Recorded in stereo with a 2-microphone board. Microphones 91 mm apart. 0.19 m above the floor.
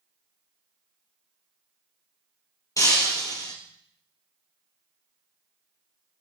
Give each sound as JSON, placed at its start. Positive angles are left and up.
{"t": 2.8, "sound": "breaking glass", "side_deg": 40, "distance_m": 2.5}